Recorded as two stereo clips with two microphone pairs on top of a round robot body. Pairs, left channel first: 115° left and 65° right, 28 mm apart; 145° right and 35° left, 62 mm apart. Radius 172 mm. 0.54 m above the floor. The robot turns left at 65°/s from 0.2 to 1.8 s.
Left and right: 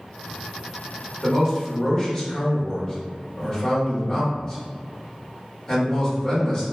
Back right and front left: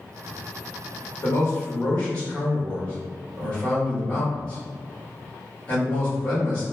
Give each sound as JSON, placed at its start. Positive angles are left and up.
{"t": 1.2, "sound": "a man speaking", "azimuth_deg": -165, "distance_m": 1.7}